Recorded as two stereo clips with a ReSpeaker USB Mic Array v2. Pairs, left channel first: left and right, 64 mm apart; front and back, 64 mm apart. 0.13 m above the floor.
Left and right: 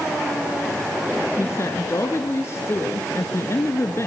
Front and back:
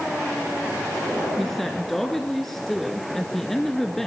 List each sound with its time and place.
1.4 s a woman speaking: 85° left, 1.5 m